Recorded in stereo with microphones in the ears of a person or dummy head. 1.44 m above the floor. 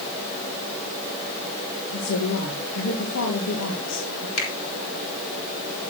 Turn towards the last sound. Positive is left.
turn(degrees=85)